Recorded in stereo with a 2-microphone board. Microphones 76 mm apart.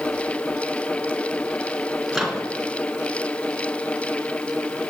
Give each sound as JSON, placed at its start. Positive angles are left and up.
{"t": 2.1, "sound": "a microwave", "side_deg": 0, "distance_m": 1.4}